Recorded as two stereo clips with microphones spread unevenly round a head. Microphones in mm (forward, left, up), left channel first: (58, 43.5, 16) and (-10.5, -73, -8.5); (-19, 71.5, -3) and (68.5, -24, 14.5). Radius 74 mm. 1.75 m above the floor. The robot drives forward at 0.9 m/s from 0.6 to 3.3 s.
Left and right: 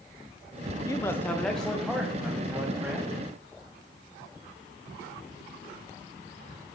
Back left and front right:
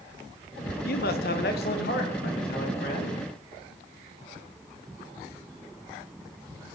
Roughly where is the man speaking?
Behind left.